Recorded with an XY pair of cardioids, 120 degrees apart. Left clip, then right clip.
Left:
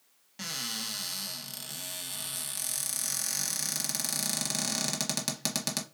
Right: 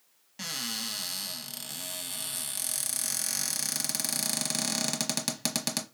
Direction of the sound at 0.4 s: 5° right.